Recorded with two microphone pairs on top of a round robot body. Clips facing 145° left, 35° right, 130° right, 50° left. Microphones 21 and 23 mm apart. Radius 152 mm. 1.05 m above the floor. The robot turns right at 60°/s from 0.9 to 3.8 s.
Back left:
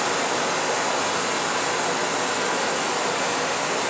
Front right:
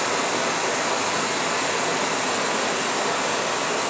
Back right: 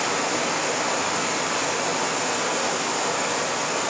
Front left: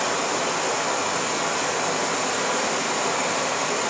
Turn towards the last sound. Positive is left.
turn(degrees=60)